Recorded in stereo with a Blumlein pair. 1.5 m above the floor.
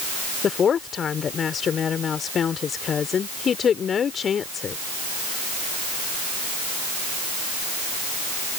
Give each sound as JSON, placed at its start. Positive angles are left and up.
{"t": 0.4, "sound": "a woman speaking", "azimuth_deg": 20}